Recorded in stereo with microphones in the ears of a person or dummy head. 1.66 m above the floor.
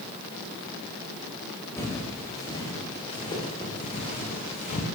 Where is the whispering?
No whispering in this recording.